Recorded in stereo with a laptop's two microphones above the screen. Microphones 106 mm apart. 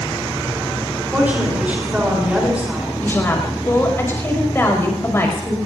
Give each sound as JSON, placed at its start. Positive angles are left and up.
{"t": 1.1, "sound": "a woman speaking", "side_deg": -15, "distance_m": 4.0}
{"t": 3.0, "sound": "a woman speaking", "side_deg": 25, "distance_m": 5.5}